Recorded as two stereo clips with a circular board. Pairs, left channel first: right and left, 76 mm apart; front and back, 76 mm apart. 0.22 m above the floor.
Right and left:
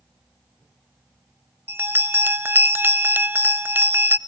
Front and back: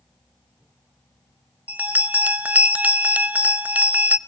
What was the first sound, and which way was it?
A bell, 125° left.